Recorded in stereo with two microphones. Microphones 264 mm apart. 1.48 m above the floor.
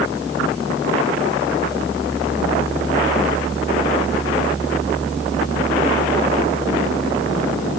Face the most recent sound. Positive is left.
No sound to turn to.